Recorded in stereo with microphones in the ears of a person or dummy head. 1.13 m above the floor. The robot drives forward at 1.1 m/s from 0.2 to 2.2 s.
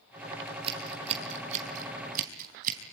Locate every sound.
0.5 s scissors: 30° right (ahead or behind), 5 m; by 2.8 s 45° right (ahead or behind), 3.5 m